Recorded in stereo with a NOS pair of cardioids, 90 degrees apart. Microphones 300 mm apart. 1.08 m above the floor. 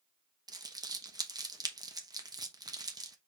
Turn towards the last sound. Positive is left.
turn(degrees=-15)